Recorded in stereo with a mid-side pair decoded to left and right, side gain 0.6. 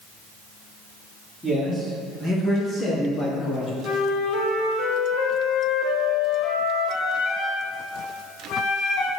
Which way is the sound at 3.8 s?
65° left.